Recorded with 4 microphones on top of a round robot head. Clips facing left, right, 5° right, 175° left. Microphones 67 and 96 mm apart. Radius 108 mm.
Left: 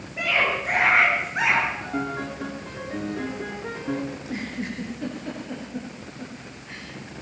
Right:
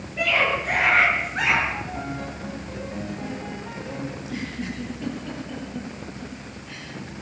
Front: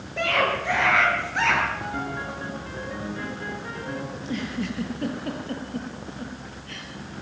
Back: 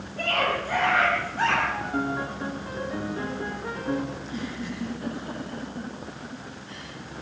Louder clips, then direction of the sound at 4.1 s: Even, front 3 dB; 25° left.